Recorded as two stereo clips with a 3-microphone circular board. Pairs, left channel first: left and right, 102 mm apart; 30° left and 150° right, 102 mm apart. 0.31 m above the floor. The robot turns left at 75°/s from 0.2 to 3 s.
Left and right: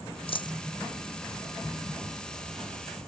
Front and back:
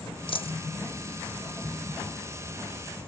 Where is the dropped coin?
65° left; by 0.6 s 40° left.